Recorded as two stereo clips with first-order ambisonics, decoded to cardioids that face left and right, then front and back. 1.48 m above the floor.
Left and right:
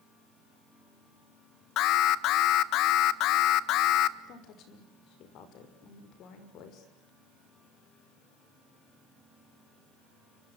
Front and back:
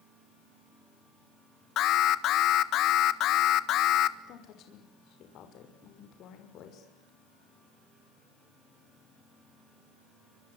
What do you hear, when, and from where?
1.8 s an alarm: 45° left, 1.3 m
4.3 s a woman speaking: 45° left, 5.5 m